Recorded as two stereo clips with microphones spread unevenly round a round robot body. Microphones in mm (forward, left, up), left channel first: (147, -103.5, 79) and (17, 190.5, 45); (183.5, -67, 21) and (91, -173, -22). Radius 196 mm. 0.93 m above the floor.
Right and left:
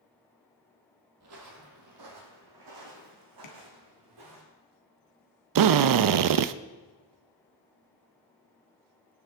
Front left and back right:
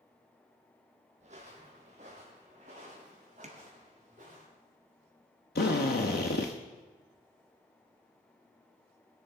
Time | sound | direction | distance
1.2 | footsteps | 165° left | 1.5 m
3.4 | tapping | 105° right | 1.7 m
5.5 | a drill | 85° left | 0.6 m